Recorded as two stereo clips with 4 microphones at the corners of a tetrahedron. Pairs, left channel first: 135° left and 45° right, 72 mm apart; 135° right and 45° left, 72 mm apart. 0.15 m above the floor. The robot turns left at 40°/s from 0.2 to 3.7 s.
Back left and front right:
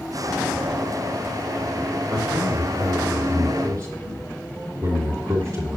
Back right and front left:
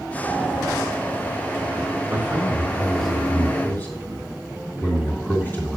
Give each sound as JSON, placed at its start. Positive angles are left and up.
{"t": 2.1, "sound": "a man speaking", "azimuth_deg": -10, "distance_m": 3.0}